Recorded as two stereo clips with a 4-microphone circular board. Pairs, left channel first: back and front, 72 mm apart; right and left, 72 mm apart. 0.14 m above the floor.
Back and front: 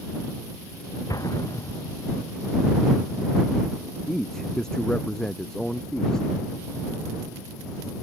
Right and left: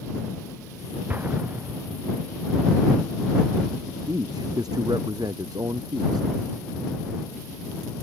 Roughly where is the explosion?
Behind left.